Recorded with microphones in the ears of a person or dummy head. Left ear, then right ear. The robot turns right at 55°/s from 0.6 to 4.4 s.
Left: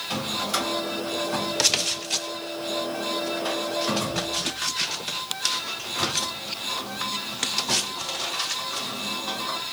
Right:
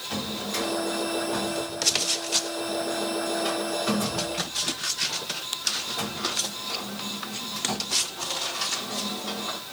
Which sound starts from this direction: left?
A drawer, at 0.1 s.